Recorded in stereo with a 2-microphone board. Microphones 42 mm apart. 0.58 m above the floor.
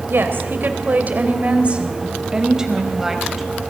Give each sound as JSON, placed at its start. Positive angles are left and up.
{"t": 0.1, "sound": "a woman speaking", "side_deg": -60, "distance_m": 3.0}